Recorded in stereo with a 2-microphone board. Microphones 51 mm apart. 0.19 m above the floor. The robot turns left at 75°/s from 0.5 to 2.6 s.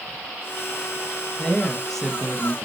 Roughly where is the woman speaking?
Centre.